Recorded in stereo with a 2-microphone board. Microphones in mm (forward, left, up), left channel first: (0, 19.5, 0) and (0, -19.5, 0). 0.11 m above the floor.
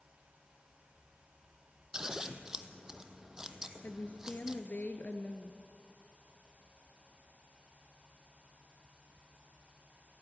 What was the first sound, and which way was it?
Scissors, 15° right (ahead or behind).